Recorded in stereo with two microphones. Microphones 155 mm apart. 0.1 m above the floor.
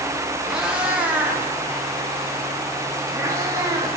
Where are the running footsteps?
No running footsteps in this recording.